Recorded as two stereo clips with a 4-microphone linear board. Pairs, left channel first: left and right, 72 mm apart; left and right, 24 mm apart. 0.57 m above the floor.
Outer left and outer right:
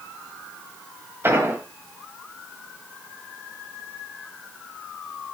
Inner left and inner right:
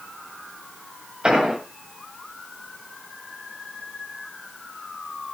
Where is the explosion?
35° right (ahead or behind), 1.8 m.